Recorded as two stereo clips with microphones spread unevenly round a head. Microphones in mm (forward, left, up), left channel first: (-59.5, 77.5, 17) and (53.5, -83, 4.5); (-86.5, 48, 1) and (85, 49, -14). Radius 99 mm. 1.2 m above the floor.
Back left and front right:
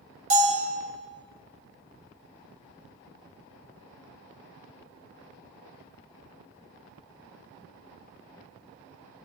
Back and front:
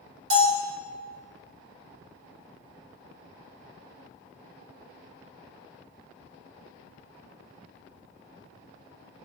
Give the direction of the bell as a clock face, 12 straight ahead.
1 o'clock.